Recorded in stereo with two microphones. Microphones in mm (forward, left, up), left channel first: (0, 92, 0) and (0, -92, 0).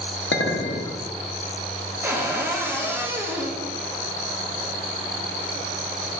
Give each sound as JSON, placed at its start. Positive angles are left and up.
{"t": 0.3, "sound": "a clink", "side_deg": 85, "distance_m": 0.7}
{"t": 2.0, "sound": "a cupboard door", "side_deg": -10, "distance_m": 0.7}